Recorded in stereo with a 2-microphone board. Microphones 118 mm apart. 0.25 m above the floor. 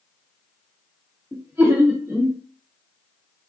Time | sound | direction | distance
1.3 | laughter | 20° right (ahead or behind) | 1.9 m